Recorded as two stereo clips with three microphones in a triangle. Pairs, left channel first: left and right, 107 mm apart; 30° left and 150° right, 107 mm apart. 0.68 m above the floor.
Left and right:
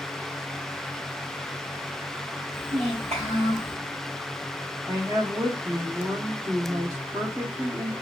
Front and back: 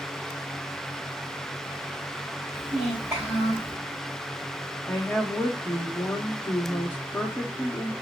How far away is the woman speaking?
About 1.3 m.